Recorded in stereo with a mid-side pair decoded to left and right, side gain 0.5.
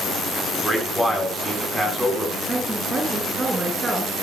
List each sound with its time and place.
0.5 s a man speaking: 5° right, 9 m
2.5 s a woman speaking: 25° right, 5.5 m